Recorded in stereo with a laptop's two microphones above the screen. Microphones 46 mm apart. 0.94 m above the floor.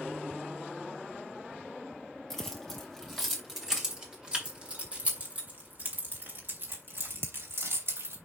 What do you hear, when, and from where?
2.3 s keys jangling: 5° left (ahead or behind), 3 m; by 8.2 s 70° right (ahead or behind), 3.5 m